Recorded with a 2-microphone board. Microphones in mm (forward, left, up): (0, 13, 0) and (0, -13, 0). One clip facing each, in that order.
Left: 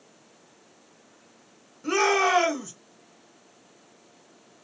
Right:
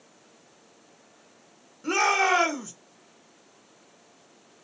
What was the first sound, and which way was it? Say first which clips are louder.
A shout: even; 5° right (ahead or behind).